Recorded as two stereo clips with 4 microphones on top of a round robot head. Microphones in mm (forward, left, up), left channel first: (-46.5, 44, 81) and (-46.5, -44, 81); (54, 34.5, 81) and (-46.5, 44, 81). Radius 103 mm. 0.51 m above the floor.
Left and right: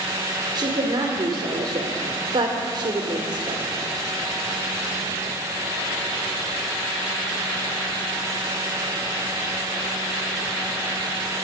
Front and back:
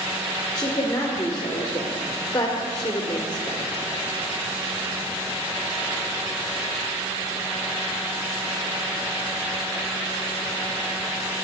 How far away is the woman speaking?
About 1.8 m.